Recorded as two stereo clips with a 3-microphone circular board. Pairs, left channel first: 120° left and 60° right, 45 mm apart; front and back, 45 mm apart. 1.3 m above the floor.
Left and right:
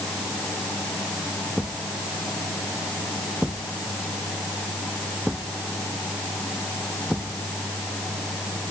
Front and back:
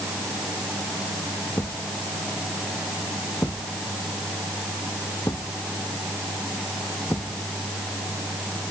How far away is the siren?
I don't hear a siren.